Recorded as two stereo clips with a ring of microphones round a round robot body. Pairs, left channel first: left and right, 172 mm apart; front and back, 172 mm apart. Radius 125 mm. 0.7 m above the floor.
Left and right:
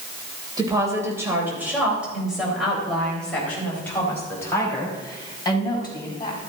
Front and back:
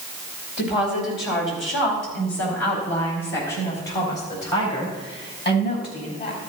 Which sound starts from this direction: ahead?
A woman speaking, at 0.6 s.